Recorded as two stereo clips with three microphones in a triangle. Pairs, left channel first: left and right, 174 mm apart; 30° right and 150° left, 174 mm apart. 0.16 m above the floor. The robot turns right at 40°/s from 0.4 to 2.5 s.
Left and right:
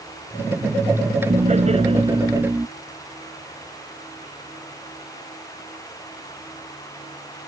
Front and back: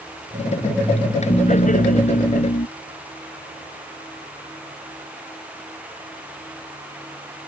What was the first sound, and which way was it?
Laughter, 65° right.